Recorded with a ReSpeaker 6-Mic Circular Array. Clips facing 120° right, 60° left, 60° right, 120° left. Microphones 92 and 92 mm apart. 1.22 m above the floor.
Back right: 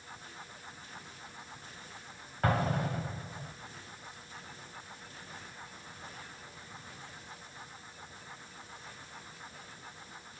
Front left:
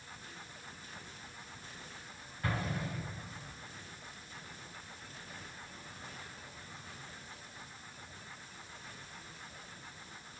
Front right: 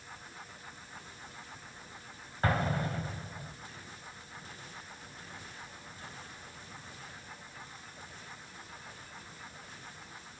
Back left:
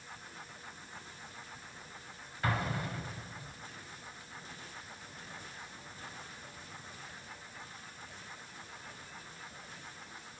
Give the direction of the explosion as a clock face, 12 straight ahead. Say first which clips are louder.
Back right 7 dB, front right 4 dB; 4 o'clock.